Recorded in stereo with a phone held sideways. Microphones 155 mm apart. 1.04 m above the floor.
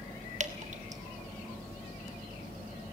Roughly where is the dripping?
Right.